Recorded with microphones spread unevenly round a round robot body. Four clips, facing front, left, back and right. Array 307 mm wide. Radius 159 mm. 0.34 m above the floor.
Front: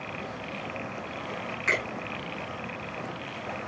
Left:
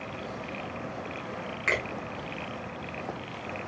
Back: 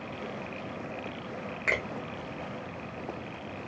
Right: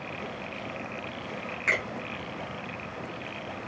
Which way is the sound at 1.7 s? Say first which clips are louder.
Even, front 2 dB; straight behind.